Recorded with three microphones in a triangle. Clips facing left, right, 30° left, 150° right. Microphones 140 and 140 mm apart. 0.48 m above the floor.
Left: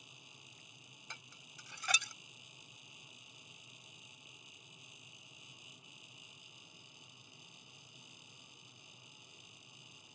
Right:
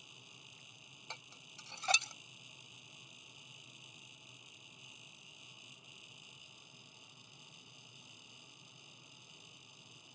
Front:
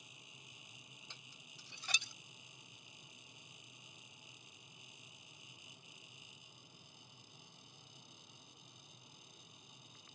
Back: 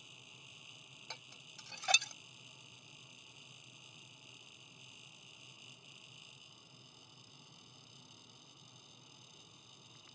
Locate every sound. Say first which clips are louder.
1.1 s dishes clattering: right 4 dB, back 6 dB; 150° right